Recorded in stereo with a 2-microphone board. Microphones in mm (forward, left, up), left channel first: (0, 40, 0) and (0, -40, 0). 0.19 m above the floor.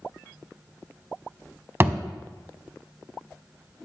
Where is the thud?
30° right (ahead or behind), 0.5 m.